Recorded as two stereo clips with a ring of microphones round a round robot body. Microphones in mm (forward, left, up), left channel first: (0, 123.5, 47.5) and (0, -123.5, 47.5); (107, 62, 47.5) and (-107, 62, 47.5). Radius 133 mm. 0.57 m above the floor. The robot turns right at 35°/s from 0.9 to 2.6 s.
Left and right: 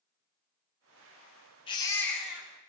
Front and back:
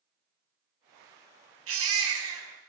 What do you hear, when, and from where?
1.7 s a baby crying: 160° left, 3 m; by 2.5 s 170° right, 3 m